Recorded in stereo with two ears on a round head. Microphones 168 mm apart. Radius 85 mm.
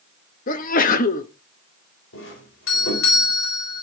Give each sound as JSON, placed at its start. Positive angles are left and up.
{"t": 0.5, "sound": "a sneeze", "side_deg": 45, "distance_m": 1.0}
{"t": 2.1, "sound": "a doorbell", "side_deg": 75, "distance_m": 4.0}